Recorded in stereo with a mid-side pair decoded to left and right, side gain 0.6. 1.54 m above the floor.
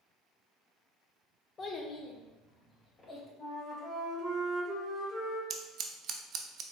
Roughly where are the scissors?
Ahead right.